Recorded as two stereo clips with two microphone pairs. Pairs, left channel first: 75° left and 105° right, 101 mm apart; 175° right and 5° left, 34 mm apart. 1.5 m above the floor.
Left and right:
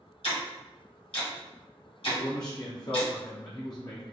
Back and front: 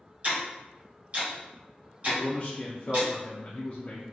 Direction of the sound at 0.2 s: 55° left.